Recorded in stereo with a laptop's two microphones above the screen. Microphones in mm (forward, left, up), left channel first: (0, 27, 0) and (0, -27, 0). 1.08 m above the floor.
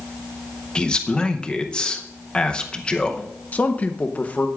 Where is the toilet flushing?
No toilet flushing in this recording.